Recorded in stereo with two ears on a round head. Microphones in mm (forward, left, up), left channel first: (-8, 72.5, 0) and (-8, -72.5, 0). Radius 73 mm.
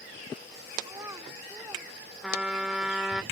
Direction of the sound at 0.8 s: 20° right (ahead or behind).